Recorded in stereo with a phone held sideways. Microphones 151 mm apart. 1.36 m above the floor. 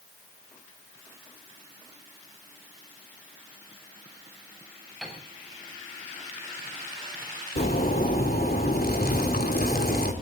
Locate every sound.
5.0 s a piano: centre (ahead or behind), 7 m
7.6 s a zipper: 80° left, 3 m